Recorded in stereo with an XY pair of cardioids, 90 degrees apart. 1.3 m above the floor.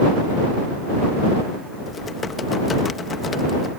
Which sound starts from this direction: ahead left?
Typing on a keyboard, at 1.9 s.